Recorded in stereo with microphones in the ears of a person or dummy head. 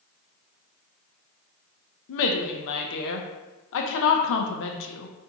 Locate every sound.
2.1 s a woman speaking: 65° left (ahead or behind), 0.6 m